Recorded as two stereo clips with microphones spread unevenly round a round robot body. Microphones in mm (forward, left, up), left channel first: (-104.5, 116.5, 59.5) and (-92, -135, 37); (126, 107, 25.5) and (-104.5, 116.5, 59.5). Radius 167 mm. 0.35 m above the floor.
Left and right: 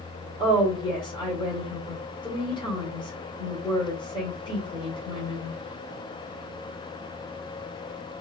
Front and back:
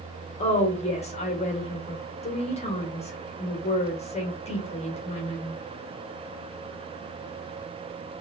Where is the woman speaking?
25° left, 1.7 m.